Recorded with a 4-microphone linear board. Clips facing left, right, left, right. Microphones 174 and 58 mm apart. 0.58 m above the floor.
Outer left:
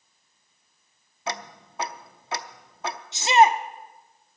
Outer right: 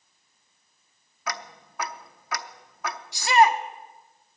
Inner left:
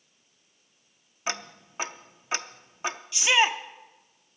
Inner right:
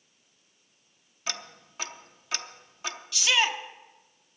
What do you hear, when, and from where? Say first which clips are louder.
1.3 s ticking: outer left 2 dB, inner left 5 dB; 25° left (ahead or behind), 0.6 m
3.1 s a shout: outer left 1 dB, inner left 3 dB; 20° left (ahead or behind), 0.7 m